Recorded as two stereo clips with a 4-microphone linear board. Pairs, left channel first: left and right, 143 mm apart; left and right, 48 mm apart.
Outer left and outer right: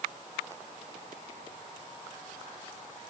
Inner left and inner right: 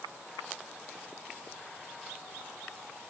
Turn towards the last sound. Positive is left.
No sound to turn to.